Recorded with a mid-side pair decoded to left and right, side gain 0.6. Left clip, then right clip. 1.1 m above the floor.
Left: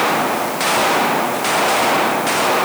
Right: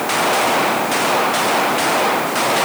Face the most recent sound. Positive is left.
No sound to turn to.